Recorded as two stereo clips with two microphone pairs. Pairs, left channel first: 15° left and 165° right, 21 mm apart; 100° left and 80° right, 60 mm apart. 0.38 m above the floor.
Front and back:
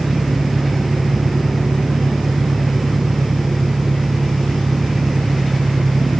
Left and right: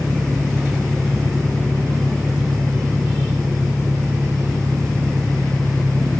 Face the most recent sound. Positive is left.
turn(degrees=-145)